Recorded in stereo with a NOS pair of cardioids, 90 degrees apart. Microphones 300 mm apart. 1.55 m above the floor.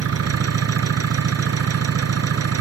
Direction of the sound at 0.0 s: 50° right.